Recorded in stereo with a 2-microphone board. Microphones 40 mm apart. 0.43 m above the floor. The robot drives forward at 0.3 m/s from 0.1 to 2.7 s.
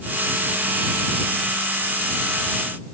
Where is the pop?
No pop in this recording.